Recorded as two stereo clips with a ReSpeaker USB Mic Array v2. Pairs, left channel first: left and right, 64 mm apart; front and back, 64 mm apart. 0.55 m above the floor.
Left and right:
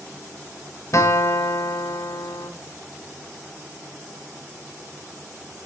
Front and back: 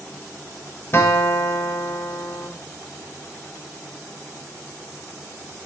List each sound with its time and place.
0.9 s a guitar: 50° left, 1.2 m